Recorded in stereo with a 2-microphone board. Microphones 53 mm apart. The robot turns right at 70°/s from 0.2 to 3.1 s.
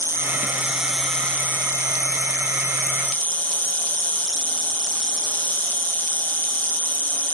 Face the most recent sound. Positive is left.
turn(degrees=150)